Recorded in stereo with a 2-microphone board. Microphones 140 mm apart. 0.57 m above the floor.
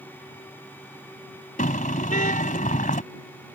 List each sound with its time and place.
1.6 s a car horn: 65° left (ahead or behind)